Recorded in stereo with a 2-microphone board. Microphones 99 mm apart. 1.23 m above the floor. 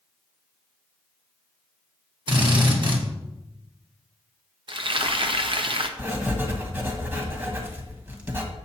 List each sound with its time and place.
2.3 s a drill: 50° right (ahead or behind), 1.5 m
4.7 s frying: 55° right (ahead or behind), 0.7 m
6.0 s writing: 20° right (ahead or behind), 1.5 m